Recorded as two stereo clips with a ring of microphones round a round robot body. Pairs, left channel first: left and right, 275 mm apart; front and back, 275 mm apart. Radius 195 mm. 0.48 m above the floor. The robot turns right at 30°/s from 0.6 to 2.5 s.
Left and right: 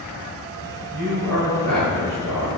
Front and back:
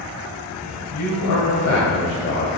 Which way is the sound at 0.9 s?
Straight ahead.